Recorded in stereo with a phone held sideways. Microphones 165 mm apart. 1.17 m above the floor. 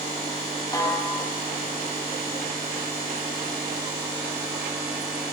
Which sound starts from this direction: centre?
A snare drum, at 0.7 s.